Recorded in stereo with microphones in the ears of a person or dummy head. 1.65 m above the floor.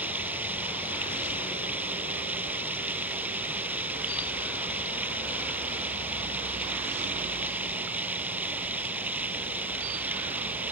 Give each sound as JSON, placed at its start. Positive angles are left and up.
{"t": 0.0, "sound": "running water", "side_deg": -10}